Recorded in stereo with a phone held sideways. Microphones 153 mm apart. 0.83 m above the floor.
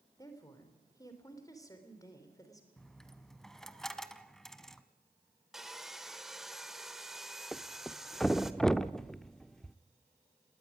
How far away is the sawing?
About 1.2 m.